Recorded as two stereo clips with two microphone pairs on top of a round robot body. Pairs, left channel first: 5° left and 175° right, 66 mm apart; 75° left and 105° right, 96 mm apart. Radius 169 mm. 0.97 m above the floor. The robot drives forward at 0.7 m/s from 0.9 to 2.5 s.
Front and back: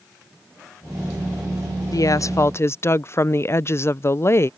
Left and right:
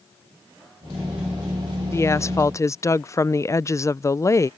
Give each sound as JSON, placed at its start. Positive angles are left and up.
{"t": 1.9, "sound": "a woman speaking", "azimuth_deg": 15}